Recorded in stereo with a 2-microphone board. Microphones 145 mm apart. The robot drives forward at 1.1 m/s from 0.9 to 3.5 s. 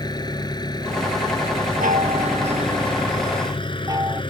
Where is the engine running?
30° left (ahead or behind); by 4.3 s 35° left (ahead or behind).